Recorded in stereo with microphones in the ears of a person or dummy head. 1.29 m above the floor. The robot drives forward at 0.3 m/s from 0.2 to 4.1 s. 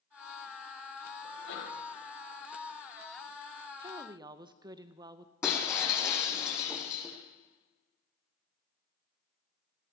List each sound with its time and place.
1.2 s a sneeze: 80° left, 6 m
3.8 s a woman speaking: 35° right (ahead or behind), 0.7 m; by 5.3 s 30° right (ahead or behind), 0.7 m
5.4 s breaking glass: 20° left (ahead or behind), 4 m